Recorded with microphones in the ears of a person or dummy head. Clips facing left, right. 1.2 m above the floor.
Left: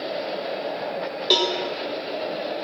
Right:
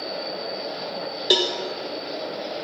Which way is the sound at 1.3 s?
5° right (ahead or behind).